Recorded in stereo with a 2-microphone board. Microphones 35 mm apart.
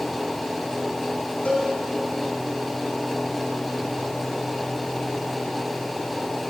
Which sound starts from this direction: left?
A cowbell, at 1.4 s.